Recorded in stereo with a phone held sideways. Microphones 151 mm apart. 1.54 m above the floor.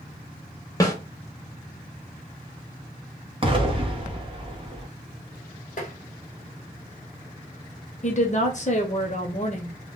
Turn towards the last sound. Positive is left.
turn(degrees=50)  # may be behind; listen again after turning